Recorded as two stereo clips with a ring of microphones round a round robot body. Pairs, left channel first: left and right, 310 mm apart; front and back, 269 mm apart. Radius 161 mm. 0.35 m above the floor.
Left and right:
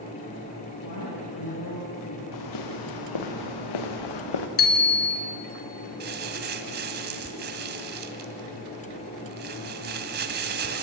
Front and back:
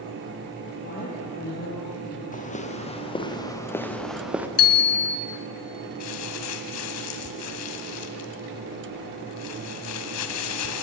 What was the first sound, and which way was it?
A woman speaking, 60° left.